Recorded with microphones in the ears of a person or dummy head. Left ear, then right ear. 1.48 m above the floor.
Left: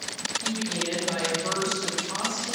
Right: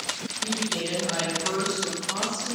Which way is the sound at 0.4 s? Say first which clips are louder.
Right 5 dB; 25° right (ahead or behind).